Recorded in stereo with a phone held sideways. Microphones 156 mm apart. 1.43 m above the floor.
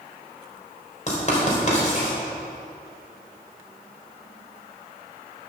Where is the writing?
50° left (ahead or behind), 3.5 m.